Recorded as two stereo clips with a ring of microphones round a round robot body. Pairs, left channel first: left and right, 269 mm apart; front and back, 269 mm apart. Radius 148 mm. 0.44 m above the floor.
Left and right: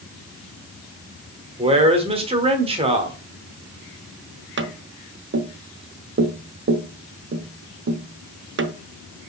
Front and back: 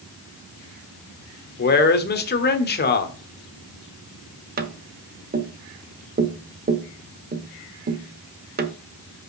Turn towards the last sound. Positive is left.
turn(degrees=-130)